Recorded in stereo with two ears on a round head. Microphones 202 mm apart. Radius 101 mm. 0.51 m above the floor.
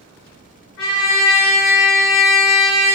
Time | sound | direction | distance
0.8 | a trumpet | 65° left (ahead or behind) | 1.9 m